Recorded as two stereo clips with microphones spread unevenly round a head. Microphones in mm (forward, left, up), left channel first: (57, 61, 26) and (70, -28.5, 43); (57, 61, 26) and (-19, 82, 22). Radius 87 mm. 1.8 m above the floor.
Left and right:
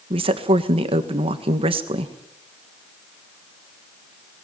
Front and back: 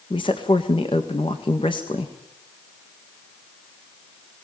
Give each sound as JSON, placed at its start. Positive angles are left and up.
{"t": 0.1, "sound": "a woman speaking", "azimuth_deg": -75, "distance_m": 1.7}